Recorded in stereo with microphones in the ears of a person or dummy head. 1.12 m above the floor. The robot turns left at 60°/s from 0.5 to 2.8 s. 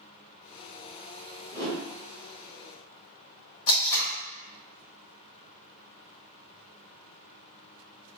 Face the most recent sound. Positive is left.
turn(degrees=50)  # may be behind; listen again after turning